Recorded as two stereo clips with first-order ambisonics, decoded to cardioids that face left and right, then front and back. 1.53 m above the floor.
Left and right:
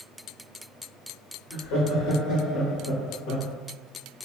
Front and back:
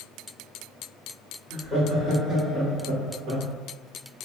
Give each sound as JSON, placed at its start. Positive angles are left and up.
{"t": 1.5, "sound": "laughter", "azimuth_deg": 75, "distance_m": 1.0}